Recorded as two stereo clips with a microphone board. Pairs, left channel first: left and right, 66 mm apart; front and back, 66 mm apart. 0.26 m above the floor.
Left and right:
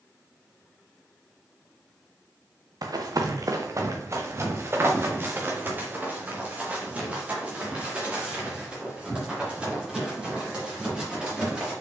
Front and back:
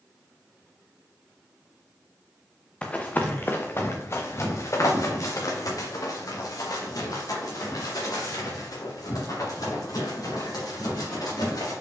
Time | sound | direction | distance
2.8 | running footsteps | 75° right | 1.2 m